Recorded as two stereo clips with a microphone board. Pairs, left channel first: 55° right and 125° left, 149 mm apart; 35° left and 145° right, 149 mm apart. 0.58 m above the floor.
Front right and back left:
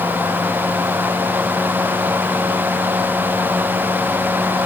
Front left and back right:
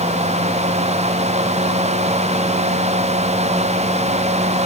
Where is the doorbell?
I don't hear a doorbell.